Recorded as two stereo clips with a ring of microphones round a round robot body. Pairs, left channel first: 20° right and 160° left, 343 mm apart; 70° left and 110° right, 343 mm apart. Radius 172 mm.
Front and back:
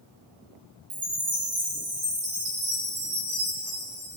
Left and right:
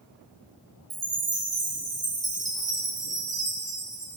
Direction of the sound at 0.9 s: 165° left.